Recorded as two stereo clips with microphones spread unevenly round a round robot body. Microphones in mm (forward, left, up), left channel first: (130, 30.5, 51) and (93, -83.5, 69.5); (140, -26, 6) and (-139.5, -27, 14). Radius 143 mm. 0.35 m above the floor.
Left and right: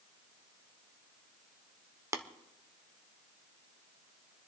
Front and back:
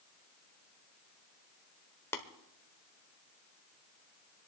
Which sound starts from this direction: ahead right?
Tapping, at 2.1 s.